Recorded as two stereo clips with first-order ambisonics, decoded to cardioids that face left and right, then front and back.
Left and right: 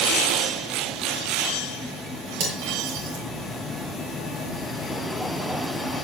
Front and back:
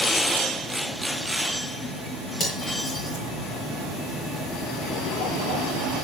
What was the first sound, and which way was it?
Cutlery clinking, 75° right.